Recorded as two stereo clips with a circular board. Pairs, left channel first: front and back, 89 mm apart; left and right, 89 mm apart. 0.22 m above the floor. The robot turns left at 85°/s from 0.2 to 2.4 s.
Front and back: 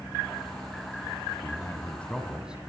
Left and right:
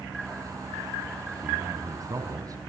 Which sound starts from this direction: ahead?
A man speaking, at 1.4 s.